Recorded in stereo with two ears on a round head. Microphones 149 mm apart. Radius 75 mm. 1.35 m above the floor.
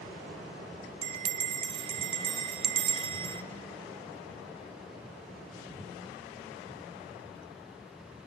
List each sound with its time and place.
1.0 s a bell: 30° right (ahead or behind), 0.7 m